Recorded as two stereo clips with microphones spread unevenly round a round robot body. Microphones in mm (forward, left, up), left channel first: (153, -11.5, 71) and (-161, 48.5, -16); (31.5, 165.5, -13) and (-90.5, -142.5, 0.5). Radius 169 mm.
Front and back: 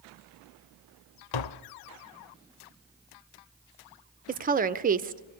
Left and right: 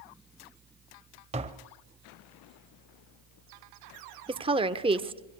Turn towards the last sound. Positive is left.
turn(degrees=180)